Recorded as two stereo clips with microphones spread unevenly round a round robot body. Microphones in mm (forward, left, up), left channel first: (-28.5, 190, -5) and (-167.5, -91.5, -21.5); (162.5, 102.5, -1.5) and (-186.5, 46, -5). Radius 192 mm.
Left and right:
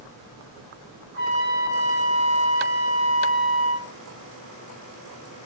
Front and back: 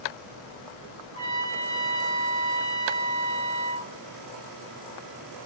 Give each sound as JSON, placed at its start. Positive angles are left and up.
{"t": 1.1, "sound": "a trumpet", "azimuth_deg": -110, "distance_m": 8.5}